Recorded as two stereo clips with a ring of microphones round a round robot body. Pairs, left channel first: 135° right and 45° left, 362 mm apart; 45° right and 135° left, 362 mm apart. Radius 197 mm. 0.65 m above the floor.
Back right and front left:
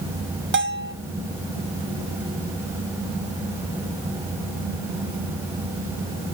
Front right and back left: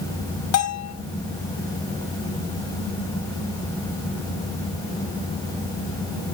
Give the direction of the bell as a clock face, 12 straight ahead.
12 o'clock.